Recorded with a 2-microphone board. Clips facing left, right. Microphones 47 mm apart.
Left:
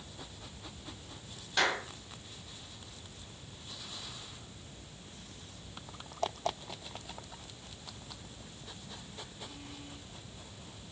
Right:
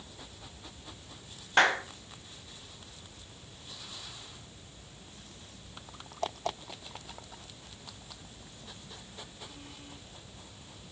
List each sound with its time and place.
1.6 s a clap: 45° right (ahead or behind), 1.5 m